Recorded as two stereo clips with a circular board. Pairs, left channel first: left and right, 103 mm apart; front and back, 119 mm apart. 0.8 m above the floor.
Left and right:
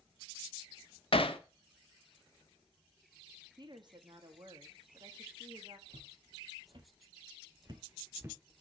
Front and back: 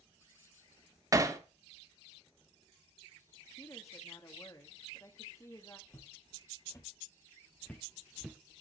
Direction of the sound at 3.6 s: 55° right.